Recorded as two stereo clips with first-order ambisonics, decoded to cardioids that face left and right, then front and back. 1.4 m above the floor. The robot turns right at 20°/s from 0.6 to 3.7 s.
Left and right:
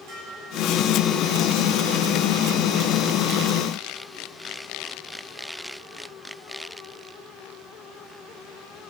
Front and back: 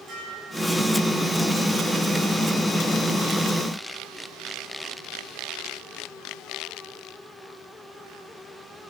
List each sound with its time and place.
0.1 s dishes clattering: 115° right, 10 m; by 0.9 s 110° right, 10 m